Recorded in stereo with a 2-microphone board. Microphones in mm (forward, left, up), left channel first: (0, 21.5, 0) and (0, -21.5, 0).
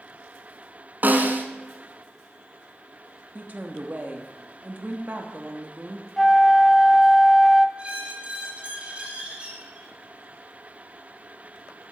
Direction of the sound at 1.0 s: 45° right (ahead or behind).